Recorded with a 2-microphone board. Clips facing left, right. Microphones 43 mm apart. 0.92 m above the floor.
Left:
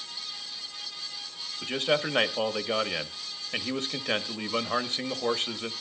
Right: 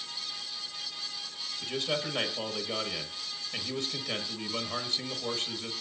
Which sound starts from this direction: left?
A man speaking, at 1.6 s.